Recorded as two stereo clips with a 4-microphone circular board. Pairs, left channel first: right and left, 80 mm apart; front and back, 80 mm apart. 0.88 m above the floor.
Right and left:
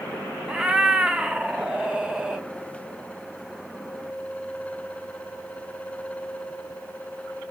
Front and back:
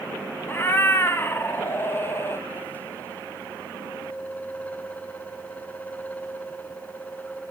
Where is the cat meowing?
20° left, 0.8 m.